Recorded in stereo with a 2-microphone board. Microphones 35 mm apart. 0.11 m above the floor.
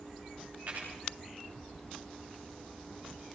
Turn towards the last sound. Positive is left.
turn(degrees=-55)  # may be behind; listen again after turning